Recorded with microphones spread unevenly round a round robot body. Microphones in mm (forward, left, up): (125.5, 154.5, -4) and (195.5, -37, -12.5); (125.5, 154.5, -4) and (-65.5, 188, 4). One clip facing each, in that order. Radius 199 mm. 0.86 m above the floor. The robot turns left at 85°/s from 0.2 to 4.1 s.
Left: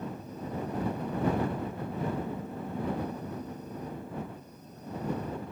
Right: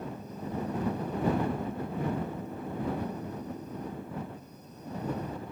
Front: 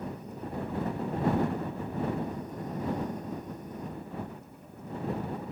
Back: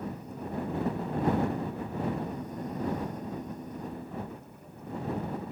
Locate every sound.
Only background noise.